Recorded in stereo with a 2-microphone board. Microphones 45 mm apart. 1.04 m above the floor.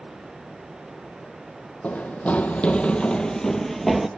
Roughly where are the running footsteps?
Left.